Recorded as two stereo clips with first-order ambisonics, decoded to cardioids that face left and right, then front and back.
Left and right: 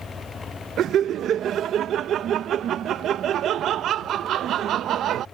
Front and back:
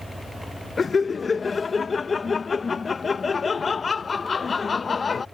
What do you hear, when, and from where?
0.8 s laughter: 65° right